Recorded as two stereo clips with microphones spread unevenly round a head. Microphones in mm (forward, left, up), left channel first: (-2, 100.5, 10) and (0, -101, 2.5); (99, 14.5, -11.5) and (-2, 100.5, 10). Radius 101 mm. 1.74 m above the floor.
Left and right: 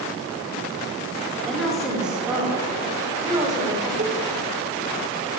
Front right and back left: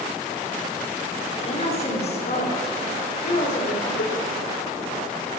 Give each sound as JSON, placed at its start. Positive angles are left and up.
{"t": 1.4, "sound": "a woman speaking", "azimuth_deg": 5, "distance_m": 4.5}
{"t": 4.0, "sound": "a cowbell", "azimuth_deg": -35, "distance_m": 2.0}